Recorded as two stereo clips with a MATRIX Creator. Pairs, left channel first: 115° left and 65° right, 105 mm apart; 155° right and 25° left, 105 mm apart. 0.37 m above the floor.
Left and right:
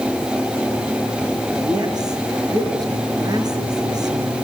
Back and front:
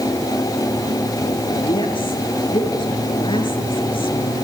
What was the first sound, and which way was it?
A woman speaking, 120° right.